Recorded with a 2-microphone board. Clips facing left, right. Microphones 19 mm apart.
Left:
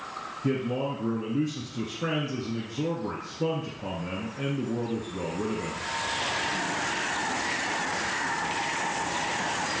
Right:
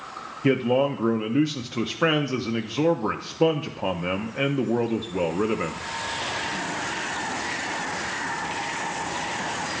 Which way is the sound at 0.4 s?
85° right.